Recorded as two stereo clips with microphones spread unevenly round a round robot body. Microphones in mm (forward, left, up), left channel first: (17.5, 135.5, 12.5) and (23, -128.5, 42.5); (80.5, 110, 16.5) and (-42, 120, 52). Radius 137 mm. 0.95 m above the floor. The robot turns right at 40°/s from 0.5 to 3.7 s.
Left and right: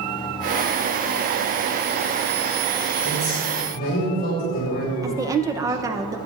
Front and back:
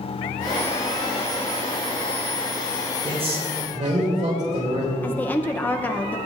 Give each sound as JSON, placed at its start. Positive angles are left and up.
{"t": 3.0, "sound": "a man speaking", "azimuth_deg": 125, "distance_m": 4.0}
{"t": 5.0, "sound": "a woman speaking", "azimuth_deg": -10, "distance_m": 0.7}